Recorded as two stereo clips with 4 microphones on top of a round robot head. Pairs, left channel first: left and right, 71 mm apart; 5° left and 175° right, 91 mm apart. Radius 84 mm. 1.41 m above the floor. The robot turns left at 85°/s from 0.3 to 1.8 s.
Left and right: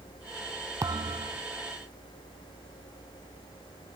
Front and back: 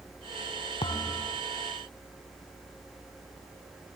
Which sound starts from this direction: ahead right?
A thud, at 0.8 s.